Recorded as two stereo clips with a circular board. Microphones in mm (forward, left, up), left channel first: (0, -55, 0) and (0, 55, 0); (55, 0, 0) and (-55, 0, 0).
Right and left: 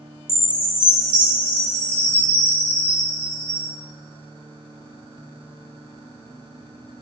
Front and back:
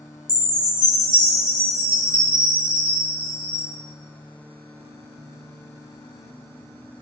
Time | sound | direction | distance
0.3 | a chime | 100° right | 1.6 m